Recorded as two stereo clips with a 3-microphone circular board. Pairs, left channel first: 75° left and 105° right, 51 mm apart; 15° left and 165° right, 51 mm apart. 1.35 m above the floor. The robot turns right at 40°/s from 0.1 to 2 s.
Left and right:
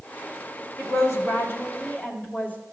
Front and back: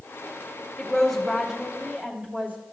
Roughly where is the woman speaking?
Left.